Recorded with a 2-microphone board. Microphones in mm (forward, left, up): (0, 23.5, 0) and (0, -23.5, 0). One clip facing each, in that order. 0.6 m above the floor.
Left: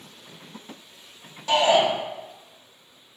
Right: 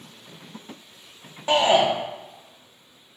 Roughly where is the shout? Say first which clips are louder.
Right 1 dB; right.